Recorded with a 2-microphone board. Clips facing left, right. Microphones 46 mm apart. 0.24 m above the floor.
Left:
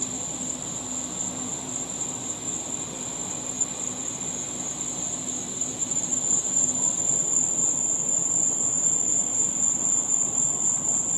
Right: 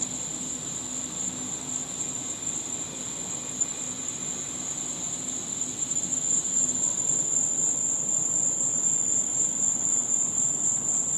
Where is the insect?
55° left (ahead or behind), 1.5 m.